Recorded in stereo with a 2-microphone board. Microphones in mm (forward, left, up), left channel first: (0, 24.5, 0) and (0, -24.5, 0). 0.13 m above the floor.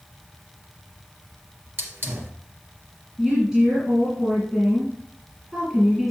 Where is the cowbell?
I don't hear a cowbell.